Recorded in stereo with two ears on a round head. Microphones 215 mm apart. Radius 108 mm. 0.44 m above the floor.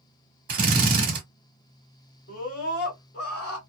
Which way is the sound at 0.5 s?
35° right (ahead or behind).